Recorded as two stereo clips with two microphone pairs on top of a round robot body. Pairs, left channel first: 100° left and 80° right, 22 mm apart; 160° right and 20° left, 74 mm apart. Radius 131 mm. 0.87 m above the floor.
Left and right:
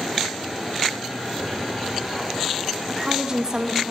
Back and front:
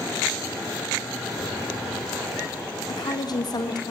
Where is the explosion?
140° right, 2.5 m.